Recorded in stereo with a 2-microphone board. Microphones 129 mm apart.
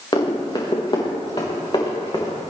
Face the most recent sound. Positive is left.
turn(degrees=35)  # may be behind; listen again after turning